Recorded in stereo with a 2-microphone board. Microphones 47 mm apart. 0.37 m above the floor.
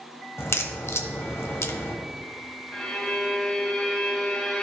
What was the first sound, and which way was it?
A crack, 60° left (ahead or behind).